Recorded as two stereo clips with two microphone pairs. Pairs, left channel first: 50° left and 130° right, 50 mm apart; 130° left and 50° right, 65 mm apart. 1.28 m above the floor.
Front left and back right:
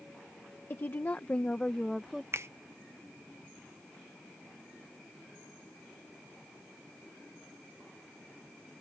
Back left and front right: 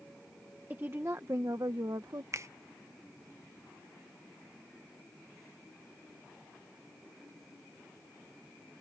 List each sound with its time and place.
0.7 s a woman speaking: 10° left; by 2.2 s 50° right
2.3 s a finger snap: 95° right